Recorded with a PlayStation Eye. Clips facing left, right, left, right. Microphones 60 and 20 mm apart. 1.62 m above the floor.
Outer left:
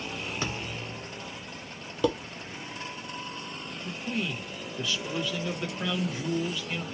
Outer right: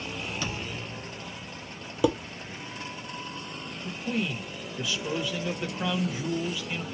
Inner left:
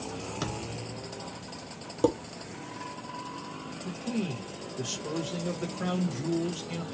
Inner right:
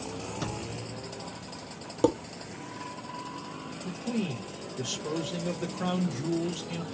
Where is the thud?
30° left (ahead or behind), 1.2 m.